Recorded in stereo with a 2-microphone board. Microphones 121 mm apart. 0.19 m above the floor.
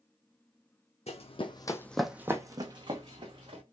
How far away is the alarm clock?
I don't hear an alarm clock.